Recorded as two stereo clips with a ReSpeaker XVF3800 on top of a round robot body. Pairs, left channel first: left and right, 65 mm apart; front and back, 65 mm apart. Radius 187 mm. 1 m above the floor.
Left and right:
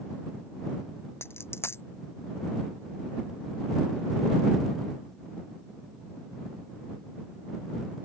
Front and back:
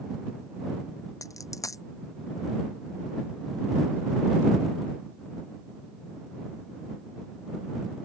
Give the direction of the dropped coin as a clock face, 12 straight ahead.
11 o'clock.